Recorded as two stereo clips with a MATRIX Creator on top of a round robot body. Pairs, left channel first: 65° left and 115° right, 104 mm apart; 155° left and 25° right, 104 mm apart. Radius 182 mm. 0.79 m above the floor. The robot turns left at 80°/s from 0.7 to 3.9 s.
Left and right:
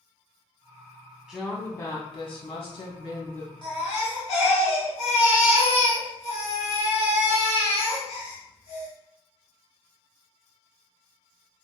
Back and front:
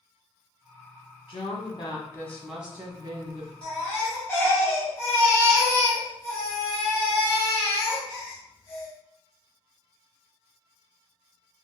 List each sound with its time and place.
1.3 s a woman speaking: 165° left, 1.0 m; by 3.5 s 15° right, 1.0 m
3.6 s a baby crying: 110° left, 0.7 m; by 8.9 s 90° left, 0.7 m